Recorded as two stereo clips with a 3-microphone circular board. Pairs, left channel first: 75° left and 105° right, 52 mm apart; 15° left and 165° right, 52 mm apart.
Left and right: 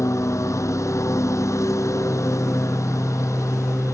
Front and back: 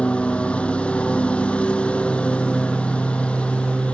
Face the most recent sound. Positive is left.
turn(degrees=85)